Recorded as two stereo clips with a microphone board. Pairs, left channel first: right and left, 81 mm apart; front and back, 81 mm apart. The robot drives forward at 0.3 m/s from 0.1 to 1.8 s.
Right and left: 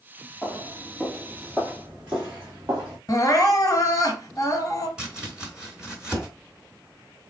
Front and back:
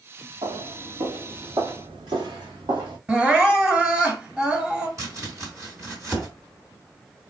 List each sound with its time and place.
0.4 s footsteps: 175° right, 1.4 m; by 3.0 s 155° left, 3 m
3.1 s crying: 115° right, 2.0 m
5.0 s chopping: 160° left, 1.6 m